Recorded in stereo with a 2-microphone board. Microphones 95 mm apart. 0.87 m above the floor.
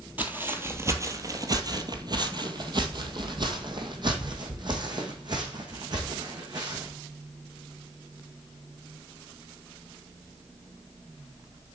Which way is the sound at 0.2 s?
20° right (ahead or behind).